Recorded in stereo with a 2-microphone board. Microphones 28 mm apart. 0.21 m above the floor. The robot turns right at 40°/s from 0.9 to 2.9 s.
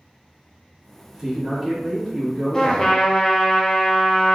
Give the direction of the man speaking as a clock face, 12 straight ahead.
2 o'clock.